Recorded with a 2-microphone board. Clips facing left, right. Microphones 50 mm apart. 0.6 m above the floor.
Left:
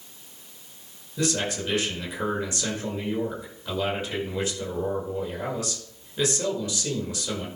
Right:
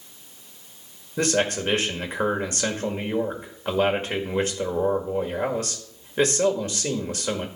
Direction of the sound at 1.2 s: 45° right (ahead or behind).